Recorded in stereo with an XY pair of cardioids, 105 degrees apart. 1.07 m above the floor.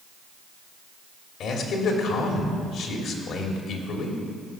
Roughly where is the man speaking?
Left.